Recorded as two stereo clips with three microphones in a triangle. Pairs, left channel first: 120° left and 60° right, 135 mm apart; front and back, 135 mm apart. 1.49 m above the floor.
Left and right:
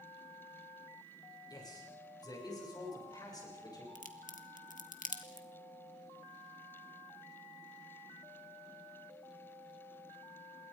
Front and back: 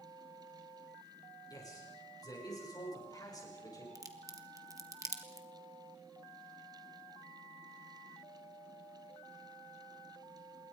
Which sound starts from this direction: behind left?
A crack, at 4.0 s.